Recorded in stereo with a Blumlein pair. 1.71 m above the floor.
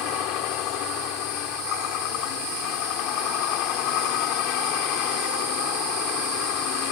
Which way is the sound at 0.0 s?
40° left.